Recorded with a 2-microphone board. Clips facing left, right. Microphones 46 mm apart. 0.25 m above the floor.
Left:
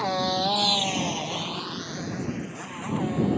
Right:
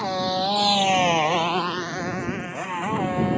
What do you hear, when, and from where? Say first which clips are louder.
0.0 s a motorcycle: right 1 dB; centre (ahead or behind); by 3.4 s 40° right (ahead or behind)